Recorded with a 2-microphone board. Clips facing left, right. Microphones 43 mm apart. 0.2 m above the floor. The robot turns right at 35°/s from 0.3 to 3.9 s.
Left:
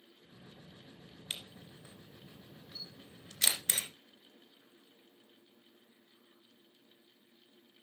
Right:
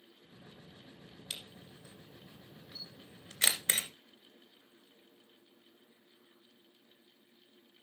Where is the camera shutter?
35° left (ahead or behind), 2.5 m; by 3.9 s 45° right (ahead or behind), 2.5 m.